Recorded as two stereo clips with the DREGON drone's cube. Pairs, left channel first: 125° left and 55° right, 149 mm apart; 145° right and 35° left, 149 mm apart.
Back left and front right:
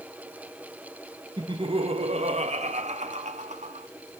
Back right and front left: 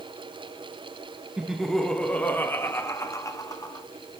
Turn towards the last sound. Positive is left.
turn(degrees=-85)